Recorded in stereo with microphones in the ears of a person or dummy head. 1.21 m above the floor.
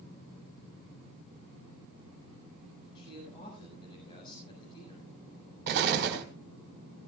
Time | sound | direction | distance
3.0 | a man speaking | 30° left (ahead or behind) | 6.5 m
5.7 | an explosion | 60° right (ahead or behind) | 2.5 m